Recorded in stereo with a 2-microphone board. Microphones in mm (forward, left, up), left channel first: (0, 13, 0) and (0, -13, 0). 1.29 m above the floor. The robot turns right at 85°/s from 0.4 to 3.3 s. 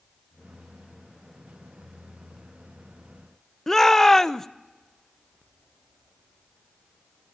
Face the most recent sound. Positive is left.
turn(degrees=15)  # may be behind; listen again after turning